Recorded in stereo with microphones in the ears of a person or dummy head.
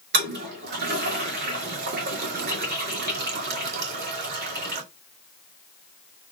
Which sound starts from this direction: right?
A toilet flushing, at 0.1 s.